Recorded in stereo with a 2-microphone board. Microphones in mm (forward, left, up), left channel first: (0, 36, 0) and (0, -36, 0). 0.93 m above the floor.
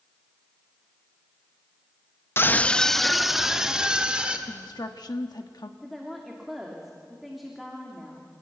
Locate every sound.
2.4 s a scream: 35° left (ahead or behind), 0.8 m; by 4.4 s 15° right (ahead or behind), 3 m
4.5 s a woman speaking: 65° left (ahead or behind), 1.2 m
5.8 s a woman speaking: centre (ahead or behind), 2.5 m